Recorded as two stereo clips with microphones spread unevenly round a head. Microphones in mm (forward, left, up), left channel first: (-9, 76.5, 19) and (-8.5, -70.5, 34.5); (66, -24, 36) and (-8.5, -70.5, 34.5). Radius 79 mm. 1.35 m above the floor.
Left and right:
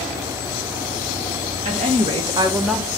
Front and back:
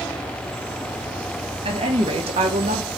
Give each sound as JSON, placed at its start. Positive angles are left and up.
{"t": 1.6, "sound": "a woman speaking", "azimuth_deg": -135, "distance_m": 1.6}